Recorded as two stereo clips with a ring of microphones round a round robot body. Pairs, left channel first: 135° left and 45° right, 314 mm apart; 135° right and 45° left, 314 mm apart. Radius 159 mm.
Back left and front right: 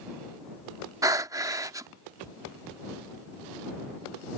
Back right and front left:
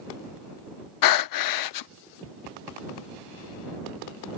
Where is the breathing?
125° right.